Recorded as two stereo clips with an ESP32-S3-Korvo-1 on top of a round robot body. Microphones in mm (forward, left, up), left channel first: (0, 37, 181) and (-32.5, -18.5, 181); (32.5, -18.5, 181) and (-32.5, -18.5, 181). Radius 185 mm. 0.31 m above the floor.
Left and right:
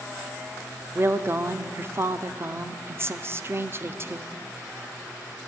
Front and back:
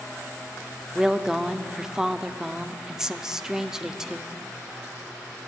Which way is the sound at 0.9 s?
105° right.